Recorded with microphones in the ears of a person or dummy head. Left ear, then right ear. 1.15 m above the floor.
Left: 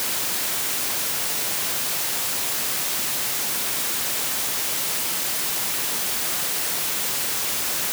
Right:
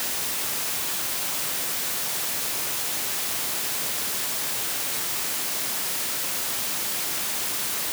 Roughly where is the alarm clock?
I don't hear an alarm clock.